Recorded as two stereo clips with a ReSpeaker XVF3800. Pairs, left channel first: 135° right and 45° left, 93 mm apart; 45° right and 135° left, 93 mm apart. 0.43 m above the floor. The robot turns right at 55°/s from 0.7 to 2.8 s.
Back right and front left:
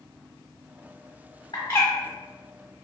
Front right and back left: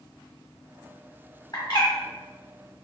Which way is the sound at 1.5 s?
95° right.